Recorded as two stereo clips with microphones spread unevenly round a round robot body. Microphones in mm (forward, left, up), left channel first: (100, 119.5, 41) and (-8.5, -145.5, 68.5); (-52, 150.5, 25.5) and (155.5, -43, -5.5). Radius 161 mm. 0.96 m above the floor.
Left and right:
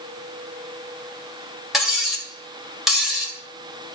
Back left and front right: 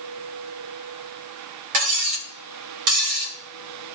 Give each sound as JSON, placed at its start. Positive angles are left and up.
{"t": 1.7, "sound": "cutlery clinking", "azimuth_deg": -25, "distance_m": 2.5}